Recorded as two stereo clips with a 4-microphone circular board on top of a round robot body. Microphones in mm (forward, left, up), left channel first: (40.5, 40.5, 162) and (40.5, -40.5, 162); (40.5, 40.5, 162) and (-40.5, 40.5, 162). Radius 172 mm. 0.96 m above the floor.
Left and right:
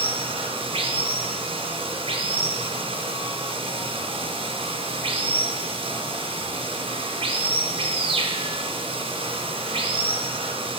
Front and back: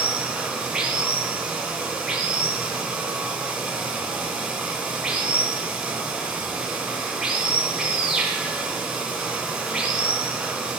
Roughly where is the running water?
Right.